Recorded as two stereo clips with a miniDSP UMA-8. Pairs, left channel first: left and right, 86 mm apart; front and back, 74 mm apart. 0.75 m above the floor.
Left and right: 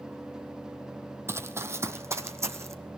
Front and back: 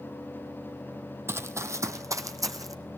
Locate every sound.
1.3 s running footsteps: 140° right, 1.0 m; by 2.8 s 145° right, 1.6 m